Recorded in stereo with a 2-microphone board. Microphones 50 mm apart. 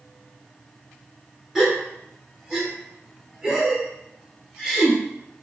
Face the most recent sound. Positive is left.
turn(degrees=-10)  # may be behind; listen again after turning